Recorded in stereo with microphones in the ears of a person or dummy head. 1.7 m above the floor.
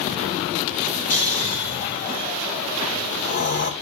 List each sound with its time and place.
1.1 s snoring: 40° left (ahead or behind), 1.8 m